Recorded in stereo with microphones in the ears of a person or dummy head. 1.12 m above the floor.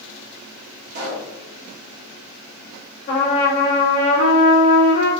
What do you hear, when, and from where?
0.9 s a pop: 55° right (ahead or behind), 1.5 m
3.1 s a trumpet: 55° left (ahead or behind), 1.6 m